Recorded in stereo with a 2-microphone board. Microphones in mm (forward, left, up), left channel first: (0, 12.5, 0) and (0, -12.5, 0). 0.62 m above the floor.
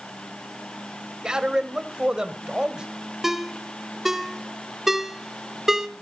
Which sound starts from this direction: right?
A man speaking, at 1.2 s.